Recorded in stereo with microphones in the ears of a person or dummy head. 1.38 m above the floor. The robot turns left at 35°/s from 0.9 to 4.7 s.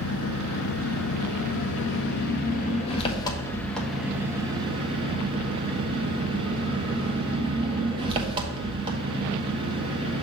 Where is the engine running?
105° left, 1.1 m; by 10.2 s 30° right, 1.1 m.